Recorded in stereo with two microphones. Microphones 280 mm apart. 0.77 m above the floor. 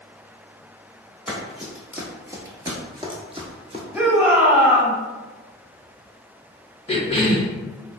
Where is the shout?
10° right (ahead or behind), 1.0 m.